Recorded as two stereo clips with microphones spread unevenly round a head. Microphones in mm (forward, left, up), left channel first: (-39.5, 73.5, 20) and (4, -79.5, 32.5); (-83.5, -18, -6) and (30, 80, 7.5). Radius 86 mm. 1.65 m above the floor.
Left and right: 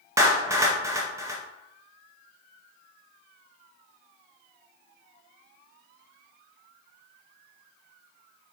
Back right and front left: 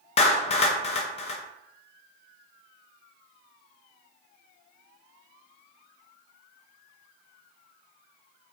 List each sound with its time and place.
0.2 s a clap: 125° right, 0.6 m